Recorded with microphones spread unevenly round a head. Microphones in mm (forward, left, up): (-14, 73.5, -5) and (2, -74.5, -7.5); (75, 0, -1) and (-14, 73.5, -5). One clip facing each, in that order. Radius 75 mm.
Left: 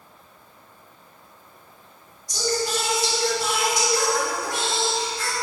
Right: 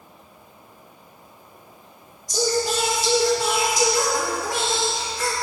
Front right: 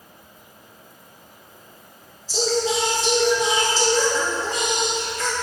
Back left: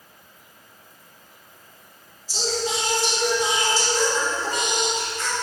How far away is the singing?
About 1.7 m.